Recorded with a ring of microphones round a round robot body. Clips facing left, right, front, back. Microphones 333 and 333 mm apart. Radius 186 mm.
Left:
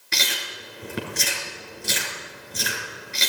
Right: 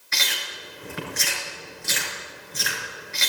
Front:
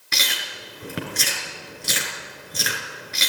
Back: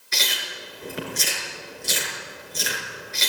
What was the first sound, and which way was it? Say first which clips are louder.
Chewing: left 3 dB, back 1 dB; 35° left.